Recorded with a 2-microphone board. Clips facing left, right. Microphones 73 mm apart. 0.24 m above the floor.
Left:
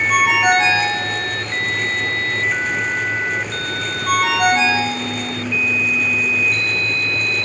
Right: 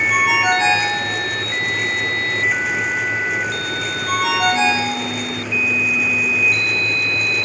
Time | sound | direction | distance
0.1 | a ringtone | 55° left (ahead or behind) | 5.5 m